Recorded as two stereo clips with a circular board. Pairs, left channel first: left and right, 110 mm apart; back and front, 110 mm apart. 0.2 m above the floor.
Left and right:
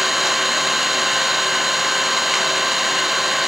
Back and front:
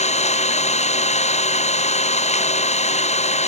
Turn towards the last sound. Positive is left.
turn(degrees=180)